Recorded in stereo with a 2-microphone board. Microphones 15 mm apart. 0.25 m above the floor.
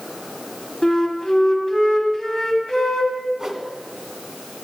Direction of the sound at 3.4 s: 30° right (ahead or behind).